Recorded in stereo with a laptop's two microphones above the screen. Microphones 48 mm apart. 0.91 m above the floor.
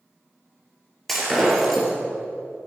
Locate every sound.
1.1 s breaking glass: 5° left (ahead or behind), 3 m